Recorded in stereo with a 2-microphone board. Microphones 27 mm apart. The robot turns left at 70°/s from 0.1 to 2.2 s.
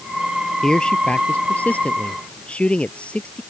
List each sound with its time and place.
0.6 s a man speaking: 155° left; by 3.4 s 45° left